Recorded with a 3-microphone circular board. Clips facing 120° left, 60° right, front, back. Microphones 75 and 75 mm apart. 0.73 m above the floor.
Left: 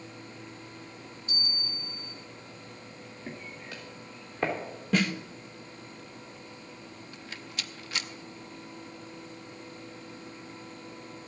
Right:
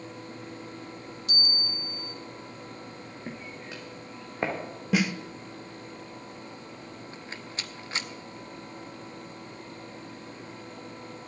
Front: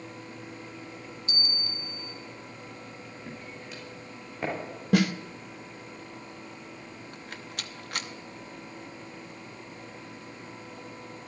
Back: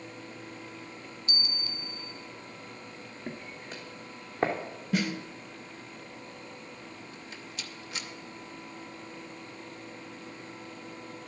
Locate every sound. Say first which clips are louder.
1.3 s a bell: right 4 dB, front 1 dB; 65° right, 1.5 m
3.3 s footsteps: right 1 dB, back 3 dB; 125° right, 3 m; by 4.5 s 130° right, 3.5 m
4.9 s a snare drum: right 1 dB, front 6 dB; 20° left, 0.8 m
7.1 s a rattle: even, front 2 dB; 10° right, 0.8 m